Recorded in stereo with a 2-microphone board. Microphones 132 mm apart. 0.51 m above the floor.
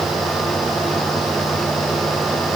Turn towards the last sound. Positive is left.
No sound to turn to.